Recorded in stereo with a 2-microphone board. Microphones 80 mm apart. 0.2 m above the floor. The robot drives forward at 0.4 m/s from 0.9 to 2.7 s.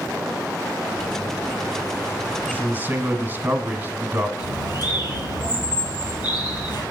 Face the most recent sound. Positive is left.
turn(degrees=60)  # may be behind; listen again after turning